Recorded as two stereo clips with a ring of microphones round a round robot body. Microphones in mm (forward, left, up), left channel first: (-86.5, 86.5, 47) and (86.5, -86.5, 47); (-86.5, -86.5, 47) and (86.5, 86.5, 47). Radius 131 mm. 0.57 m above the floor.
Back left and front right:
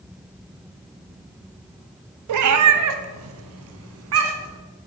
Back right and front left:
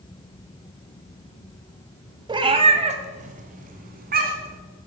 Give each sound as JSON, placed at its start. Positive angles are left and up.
{"t": 2.3, "sound": "a cat meowing", "azimuth_deg": -30, "distance_m": 0.9}